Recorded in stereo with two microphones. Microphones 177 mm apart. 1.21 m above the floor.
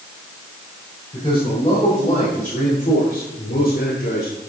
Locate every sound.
1.1 s a man speaking: 30° left (ahead or behind), 4.5 m; by 4.3 s 80° left, 3 m